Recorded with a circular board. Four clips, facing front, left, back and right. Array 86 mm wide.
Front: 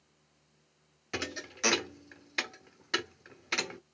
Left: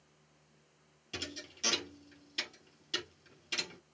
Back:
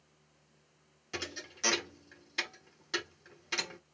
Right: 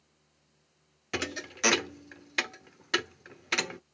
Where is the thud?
70° right, 0.7 m.